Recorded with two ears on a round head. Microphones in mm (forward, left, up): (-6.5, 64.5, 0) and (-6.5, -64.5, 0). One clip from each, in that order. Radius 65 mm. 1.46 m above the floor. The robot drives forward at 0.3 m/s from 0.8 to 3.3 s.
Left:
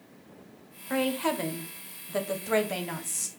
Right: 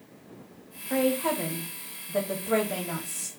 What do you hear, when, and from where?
0.9 s a woman speaking: 80° left, 0.9 m; by 3.3 s 55° left (ahead or behind), 1.1 m